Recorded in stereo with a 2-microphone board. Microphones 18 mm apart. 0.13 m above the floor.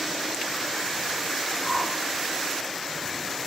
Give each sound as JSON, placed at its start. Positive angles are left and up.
{"t": 1.6, "sound": "a whoosh", "side_deg": -20, "distance_m": 1.0}